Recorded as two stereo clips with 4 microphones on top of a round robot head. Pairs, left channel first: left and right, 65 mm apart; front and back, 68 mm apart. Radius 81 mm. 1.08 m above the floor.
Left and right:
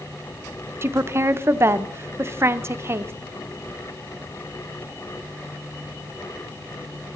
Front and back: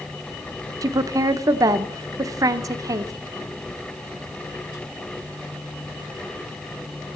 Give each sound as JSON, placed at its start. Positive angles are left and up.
{"t": 0.8, "sound": "a woman speaking", "azimuth_deg": -140, "distance_m": 0.7}